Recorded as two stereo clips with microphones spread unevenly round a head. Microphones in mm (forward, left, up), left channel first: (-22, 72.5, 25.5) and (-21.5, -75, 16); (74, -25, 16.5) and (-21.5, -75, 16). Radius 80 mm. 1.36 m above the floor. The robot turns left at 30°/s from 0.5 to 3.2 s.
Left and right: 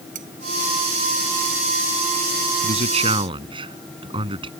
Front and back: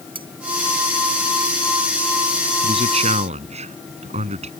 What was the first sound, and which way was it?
Cutlery clinking, 120° right.